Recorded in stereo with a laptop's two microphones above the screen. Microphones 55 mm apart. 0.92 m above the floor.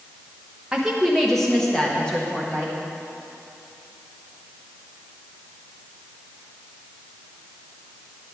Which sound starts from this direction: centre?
A woman speaking, at 0.7 s.